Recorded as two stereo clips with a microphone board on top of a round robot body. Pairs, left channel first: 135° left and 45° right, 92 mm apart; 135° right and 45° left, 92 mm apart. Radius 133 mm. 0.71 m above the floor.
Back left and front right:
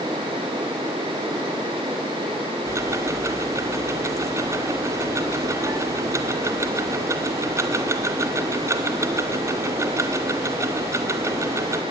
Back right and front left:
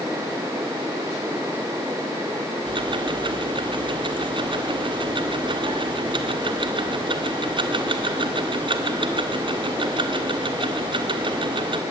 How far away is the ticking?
About 1.7 m.